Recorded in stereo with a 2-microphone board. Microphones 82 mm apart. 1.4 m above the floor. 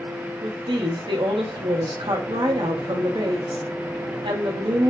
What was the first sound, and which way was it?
A woman speaking, 70° right (ahead or behind).